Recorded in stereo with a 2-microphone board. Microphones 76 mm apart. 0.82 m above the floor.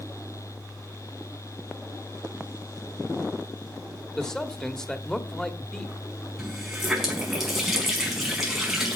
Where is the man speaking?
10° left (ahead or behind), 1.6 m.